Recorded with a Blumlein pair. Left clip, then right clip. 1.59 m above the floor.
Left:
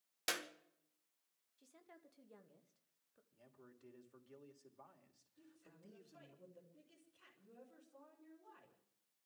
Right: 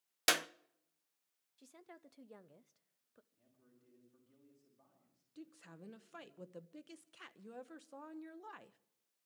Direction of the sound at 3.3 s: 60° left.